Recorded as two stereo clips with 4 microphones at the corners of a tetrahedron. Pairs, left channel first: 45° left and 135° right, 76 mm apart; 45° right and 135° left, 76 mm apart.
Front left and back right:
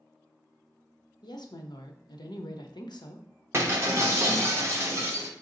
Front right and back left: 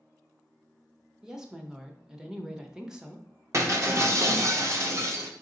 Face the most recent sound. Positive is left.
turn(degrees=180)